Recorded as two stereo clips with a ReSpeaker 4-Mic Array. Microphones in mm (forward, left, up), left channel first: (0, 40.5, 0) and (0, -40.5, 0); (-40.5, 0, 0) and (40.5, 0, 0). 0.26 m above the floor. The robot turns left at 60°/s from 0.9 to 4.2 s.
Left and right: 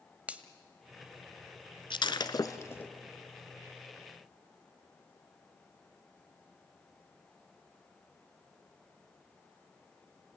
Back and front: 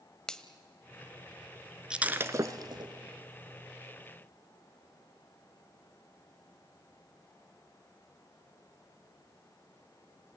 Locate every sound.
0.3 s a finger snap: 120° right, 1.1 m
1.9 s breaking glass: 80° left, 1.0 m; by 2.9 s 20° left, 1.0 m